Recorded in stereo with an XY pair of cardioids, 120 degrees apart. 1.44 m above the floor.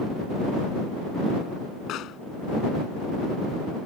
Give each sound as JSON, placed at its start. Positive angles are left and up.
{"t": 1.9, "sound": "a pop", "azimuth_deg": 65}